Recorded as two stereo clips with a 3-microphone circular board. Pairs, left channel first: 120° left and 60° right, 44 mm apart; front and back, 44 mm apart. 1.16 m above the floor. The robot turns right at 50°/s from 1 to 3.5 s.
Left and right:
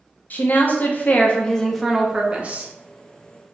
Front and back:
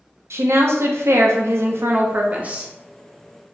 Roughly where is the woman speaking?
Behind.